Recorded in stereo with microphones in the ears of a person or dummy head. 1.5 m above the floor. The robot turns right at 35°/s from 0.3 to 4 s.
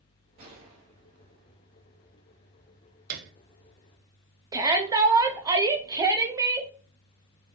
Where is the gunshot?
100° right, 0.9 m; by 1.5 s 60° right, 0.9 m.